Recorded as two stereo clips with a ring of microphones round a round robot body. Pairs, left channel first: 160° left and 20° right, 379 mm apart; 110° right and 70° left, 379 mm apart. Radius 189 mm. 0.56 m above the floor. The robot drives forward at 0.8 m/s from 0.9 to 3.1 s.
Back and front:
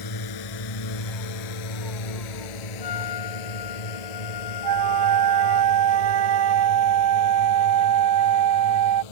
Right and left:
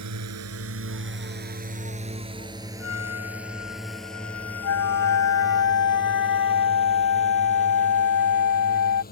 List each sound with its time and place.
0.0 s a drone: 120° left; by 9.1 s straight behind
2.8 s a trumpet: 170° right
4.6 s a flute: 60° right